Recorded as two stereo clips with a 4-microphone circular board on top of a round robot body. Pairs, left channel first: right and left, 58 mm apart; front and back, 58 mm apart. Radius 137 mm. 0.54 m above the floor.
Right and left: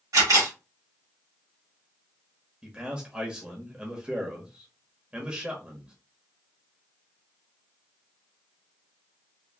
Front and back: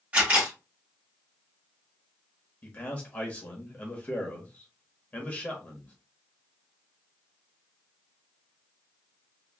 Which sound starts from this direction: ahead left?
A man speaking, at 2.6 s.